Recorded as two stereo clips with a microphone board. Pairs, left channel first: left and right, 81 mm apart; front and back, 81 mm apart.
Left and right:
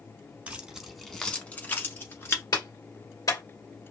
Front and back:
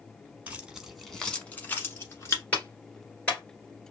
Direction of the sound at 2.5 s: 70° left.